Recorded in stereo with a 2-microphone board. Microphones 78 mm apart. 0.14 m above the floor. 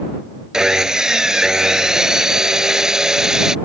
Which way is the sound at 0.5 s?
10° right (ahead or behind).